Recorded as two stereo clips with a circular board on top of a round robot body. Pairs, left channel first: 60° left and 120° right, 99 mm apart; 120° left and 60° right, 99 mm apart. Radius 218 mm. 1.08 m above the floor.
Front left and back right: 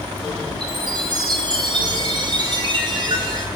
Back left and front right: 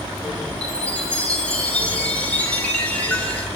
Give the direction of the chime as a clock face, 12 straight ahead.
5 o'clock.